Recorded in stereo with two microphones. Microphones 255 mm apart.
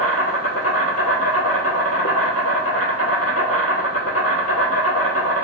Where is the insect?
70° left (ahead or behind), 0.8 m.